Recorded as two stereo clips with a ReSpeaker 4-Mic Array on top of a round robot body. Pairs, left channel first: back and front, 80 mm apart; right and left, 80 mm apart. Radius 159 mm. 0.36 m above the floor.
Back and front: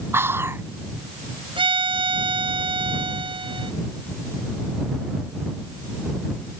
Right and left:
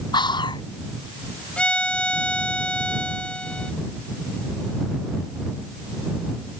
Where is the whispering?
65° right.